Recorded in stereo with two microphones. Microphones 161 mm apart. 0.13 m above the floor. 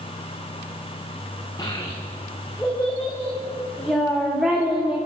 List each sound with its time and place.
1.6 s a child speaking: 20° left (ahead or behind), 6 m; by 5.0 s 5° right (ahead or behind), 8 m